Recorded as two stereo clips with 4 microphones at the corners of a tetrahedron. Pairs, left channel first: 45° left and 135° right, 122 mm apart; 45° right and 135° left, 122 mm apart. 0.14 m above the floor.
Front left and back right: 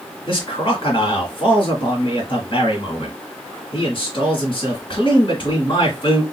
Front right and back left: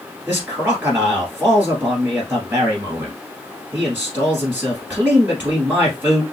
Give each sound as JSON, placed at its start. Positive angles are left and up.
{"t": 0.3, "sound": "a man speaking", "azimuth_deg": 65, "distance_m": 2.0}